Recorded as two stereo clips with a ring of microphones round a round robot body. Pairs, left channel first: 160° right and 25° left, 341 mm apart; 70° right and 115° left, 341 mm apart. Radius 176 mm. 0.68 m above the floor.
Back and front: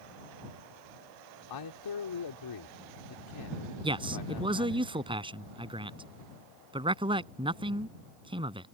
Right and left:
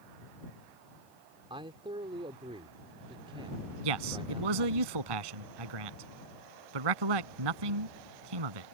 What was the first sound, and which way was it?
A man speaking, 170° right.